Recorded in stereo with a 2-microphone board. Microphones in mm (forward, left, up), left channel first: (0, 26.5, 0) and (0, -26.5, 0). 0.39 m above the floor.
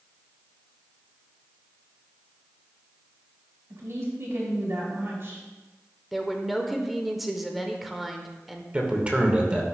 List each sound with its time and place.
3.7 s a woman speaking: 55° right (ahead or behind), 3 m
6.1 s a woman speaking: centre (ahead or behind), 0.9 m
8.7 s a man speaking: 20° right (ahead or behind), 1.3 m